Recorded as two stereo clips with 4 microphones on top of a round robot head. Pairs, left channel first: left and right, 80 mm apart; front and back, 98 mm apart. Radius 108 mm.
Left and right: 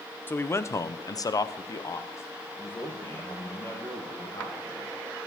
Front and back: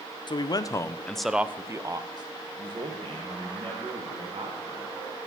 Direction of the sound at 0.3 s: 30° left.